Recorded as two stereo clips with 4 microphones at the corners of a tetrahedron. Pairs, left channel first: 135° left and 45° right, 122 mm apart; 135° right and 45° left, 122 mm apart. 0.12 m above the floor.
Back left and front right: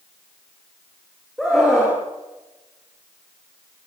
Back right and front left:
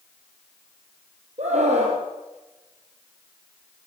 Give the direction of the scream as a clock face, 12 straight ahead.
10 o'clock.